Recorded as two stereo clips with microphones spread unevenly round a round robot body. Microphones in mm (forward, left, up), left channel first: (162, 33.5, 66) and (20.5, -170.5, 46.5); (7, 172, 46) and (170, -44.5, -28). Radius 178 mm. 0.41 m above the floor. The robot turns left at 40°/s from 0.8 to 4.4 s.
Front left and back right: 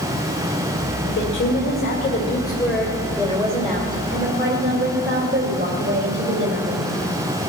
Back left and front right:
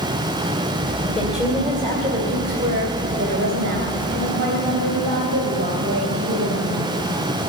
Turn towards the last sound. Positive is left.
turn(degrees=-100)